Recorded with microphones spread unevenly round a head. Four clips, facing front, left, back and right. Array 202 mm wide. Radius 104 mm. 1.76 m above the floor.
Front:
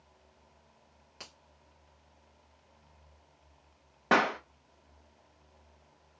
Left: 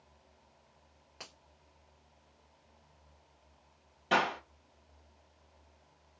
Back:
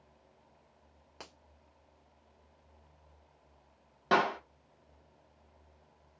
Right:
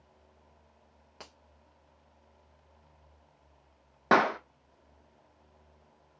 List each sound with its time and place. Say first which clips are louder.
1.2 s a finger snap: right 2 dB, back 2 dB; 155° right, 1.3 m
4.1 s a clap: right 6 dB, front 1 dB; 70° right, 0.6 m